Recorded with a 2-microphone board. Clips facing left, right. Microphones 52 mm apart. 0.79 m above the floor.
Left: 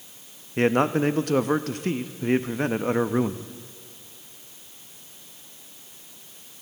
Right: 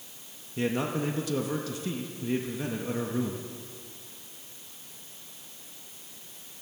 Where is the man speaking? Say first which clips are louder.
Left 8 dB; 50° left (ahead or behind), 0.6 m.